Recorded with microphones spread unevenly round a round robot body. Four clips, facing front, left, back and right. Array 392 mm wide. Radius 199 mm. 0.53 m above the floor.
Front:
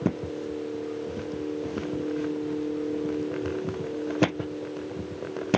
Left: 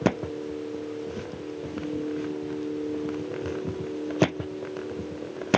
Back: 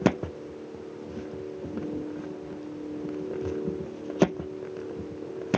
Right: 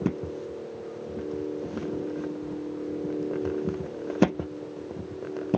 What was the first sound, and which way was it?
Only background noise.